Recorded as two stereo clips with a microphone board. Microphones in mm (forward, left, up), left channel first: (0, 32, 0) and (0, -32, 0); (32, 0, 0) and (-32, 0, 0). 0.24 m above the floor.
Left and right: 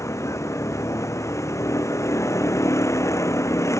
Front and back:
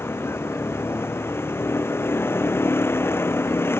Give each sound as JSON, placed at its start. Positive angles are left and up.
{"t": 0.0, "sound": "a vehicle", "azimuth_deg": 50}